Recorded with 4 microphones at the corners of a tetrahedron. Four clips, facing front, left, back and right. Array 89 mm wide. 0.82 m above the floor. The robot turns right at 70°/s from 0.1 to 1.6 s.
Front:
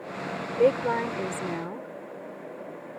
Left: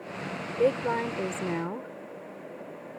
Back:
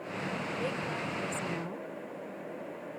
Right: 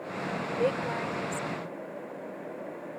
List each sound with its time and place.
0.6 s a woman speaking: straight ahead; by 1.9 s 75° left